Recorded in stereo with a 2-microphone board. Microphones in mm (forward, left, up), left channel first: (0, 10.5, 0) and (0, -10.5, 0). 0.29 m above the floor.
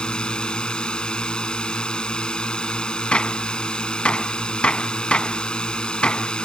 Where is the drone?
55° left (ahead or behind).